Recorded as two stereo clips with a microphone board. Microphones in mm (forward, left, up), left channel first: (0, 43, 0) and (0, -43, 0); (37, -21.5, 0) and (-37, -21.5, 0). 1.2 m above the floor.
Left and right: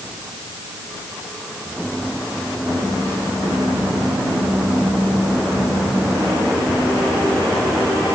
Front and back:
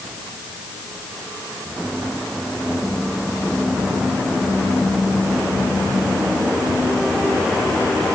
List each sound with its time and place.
Only background noise.